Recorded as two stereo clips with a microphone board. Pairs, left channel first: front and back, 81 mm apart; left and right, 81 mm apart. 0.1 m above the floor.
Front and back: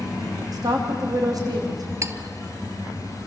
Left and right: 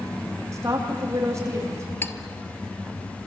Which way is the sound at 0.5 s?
140° right.